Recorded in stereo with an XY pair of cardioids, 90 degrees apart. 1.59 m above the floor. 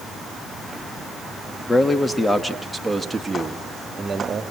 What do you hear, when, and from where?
1.7 s a man speaking: 30° left, 3.5 m; by 4.4 s 35° right, 4 m